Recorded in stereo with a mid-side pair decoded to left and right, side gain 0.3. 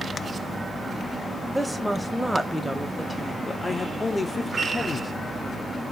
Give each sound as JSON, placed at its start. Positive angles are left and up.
{"t": 1.6, "sound": "a woman speaking", "azimuth_deg": -5, "distance_m": 1.3}
{"t": 3.5, "sound": "a man speaking", "azimuth_deg": 45, "distance_m": 1.1}